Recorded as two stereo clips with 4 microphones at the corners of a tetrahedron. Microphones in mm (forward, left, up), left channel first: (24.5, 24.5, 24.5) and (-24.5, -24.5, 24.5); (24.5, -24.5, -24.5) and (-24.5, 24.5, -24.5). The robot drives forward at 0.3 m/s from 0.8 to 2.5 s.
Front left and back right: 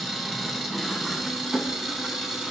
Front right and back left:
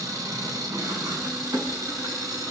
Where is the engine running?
140° left, 2.5 m; by 2.5 s 150° left, 3 m.